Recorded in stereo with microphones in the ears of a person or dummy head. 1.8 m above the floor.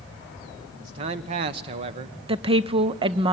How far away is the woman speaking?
About 0.5 m.